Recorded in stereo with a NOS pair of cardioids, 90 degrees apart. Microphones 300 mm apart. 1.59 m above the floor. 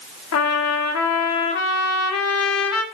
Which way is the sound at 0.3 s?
55° left.